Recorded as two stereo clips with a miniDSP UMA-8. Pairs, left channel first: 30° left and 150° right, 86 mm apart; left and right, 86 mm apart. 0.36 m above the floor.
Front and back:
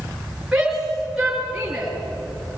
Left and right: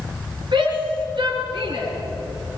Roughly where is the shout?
Right.